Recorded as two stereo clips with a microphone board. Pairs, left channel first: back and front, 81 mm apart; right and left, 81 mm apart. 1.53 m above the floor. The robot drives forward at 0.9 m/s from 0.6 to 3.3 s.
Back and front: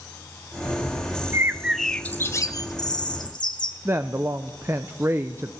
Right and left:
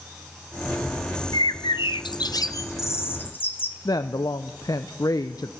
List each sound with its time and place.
1.3 s a bird: 55° right, 0.8 m; by 3.8 s 155° right, 1.5 m
3.9 s a woman speaking: 55° right, 0.7 m